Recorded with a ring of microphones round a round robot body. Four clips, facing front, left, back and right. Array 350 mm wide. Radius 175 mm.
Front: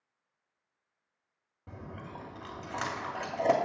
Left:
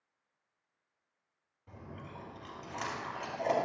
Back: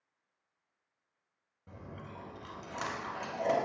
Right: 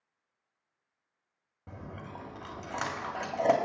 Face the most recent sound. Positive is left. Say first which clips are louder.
# right 4 dB, front 3 dB
turn(degrees=-65)